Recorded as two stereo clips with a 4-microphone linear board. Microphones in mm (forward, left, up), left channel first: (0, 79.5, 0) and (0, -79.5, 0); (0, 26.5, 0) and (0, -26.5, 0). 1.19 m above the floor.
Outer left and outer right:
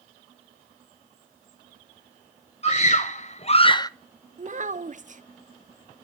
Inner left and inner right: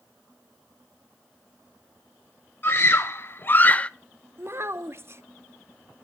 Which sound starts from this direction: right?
A child speaking, at 4.4 s.